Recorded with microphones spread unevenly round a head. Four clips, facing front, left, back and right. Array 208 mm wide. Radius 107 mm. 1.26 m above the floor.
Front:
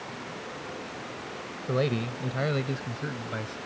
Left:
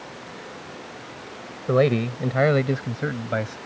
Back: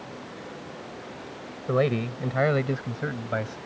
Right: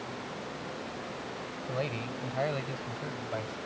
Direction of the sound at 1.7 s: 90° left.